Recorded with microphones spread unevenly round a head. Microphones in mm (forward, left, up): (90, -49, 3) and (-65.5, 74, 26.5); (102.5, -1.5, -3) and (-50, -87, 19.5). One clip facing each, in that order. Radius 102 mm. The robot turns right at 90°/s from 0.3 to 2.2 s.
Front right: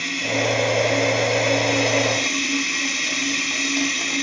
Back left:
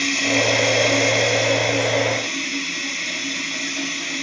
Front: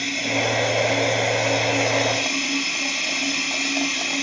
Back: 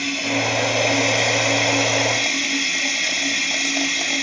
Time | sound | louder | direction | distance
0.0 | running water | back left 3 dB, back 1 dB | 120° left | 3.5 m